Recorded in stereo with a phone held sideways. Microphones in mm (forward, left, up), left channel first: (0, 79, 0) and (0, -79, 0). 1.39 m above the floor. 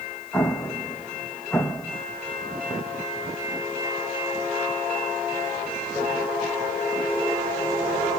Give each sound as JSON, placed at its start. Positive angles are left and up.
{"t": 0.3, "sound": "an explosion", "side_deg": 5, "distance_m": 1.0}